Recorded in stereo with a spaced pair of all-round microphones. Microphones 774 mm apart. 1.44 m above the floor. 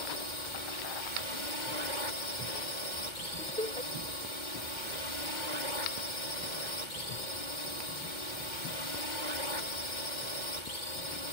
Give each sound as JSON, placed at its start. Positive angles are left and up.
{"t": 0.0, "sound": "a drone", "side_deg": 70}
{"t": 3.4, "sound": "laughter", "side_deg": 5}